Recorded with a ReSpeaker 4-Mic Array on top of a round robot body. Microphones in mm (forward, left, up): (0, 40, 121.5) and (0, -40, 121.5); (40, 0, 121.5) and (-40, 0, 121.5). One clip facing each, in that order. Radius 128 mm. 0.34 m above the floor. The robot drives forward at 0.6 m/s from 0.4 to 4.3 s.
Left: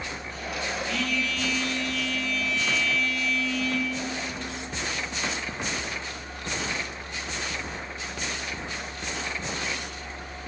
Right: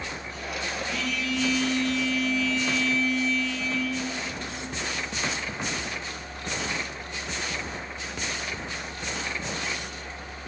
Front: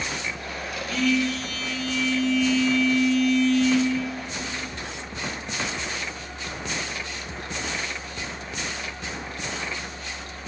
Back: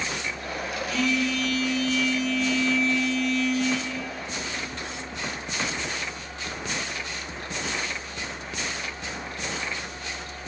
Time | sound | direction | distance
0.9 | a phone buzzing | 20° right | 2 m